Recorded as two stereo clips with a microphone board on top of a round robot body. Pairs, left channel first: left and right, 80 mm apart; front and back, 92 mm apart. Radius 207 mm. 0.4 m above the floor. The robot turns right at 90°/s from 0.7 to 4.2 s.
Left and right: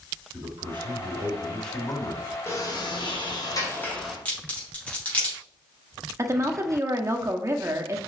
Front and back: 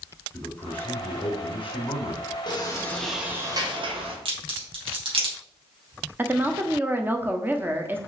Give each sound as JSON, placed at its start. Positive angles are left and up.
{"t": 0.3, "sound": "a man speaking", "azimuth_deg": -80, "distance_m": 2.5}
{"t": 2.5, "sound": "a sliding door", "azimuth_deg": 35, "distance_m": 2.0}
{"t": 4.2, "sound": "a crack", "azimuth_deg": 165, "distance_m": 3.5}
{"t": 6.2, "sound": "a woman speaking", "azimuth_deg": -120, "distance_m": 1.2}